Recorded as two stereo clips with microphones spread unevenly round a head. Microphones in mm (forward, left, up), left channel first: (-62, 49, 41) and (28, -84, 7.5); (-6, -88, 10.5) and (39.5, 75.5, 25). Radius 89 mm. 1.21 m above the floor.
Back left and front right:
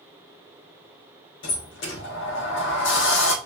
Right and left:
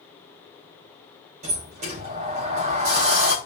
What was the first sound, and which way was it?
A sliding door, 130° left.